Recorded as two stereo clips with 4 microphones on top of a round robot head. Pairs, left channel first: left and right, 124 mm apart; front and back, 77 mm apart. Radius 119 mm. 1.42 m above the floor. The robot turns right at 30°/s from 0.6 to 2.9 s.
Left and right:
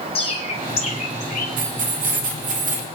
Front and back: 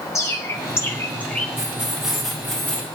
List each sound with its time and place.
0.1 s a bird: 50° left, 1.5 m; by 1.5 s 75° left, 1.5 m
1.6 s keys jangling: 110° right, 1.3 m; by 2.9 s 70° right, 1.3 m